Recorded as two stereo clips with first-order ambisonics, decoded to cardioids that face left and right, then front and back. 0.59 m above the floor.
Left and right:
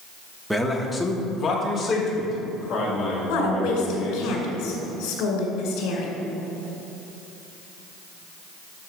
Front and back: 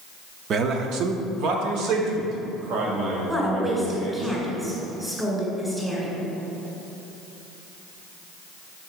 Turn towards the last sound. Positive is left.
turn(degrees=100)